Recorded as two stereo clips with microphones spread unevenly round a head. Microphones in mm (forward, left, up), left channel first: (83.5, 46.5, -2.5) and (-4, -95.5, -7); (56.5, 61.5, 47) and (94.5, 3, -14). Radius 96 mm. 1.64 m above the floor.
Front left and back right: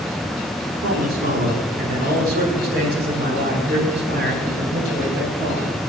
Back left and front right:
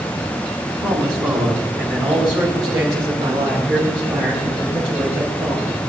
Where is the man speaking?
90° right, 4 m; by 5.8 s 105° right, 11.5 m.